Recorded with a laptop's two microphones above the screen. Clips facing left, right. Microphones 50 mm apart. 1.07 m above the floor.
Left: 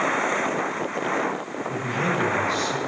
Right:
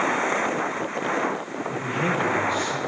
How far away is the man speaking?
About 7 m.